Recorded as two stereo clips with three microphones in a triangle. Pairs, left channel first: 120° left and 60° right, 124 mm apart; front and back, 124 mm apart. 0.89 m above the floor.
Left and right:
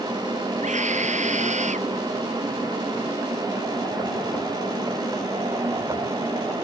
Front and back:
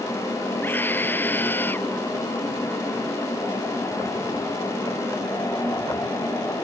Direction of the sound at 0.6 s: 75° right.